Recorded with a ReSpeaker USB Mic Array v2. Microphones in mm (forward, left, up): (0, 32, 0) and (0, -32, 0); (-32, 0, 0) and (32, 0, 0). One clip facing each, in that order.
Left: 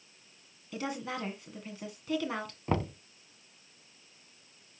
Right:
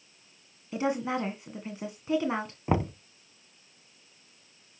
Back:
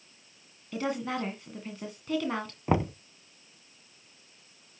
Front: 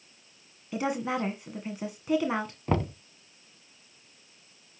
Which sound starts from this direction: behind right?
Knocking, at 2.7 s.